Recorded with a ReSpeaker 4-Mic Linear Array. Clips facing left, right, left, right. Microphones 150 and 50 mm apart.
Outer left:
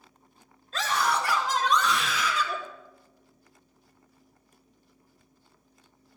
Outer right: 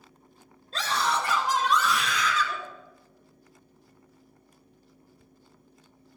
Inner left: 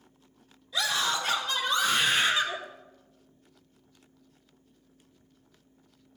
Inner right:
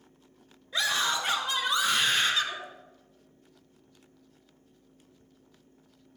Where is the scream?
35° right (ahead or behind), 1.7 m; by 2.6 s 20° left (ahead or behind), 1.6 m.